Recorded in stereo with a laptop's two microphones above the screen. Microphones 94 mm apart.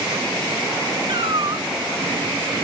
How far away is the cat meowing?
About 1.2 m.